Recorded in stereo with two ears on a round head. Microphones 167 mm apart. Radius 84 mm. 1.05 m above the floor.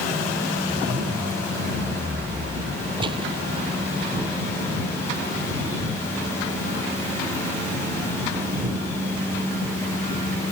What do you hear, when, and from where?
0.7 s a zipper: 75° right (ahead or behind)
3.0 s a gunshot: 30° right (ahead or behind)